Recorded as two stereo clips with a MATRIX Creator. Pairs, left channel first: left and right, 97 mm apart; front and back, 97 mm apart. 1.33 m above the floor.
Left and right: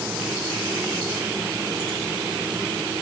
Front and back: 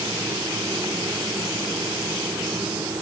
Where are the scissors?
No scissors in this recording.